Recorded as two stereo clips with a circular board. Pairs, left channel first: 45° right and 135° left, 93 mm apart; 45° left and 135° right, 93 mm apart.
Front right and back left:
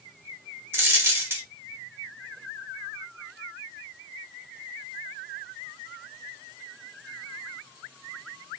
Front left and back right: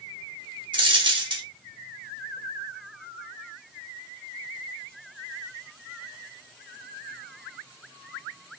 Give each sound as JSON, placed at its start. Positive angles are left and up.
{"t": 0.7, "sound": "a dropped coin", "azimuth_deg": -160, "distance_m": 0.7}